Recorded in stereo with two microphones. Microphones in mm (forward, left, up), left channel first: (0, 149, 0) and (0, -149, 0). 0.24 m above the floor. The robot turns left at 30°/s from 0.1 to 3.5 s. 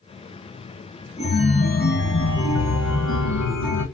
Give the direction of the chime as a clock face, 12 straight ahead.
6 o'clock.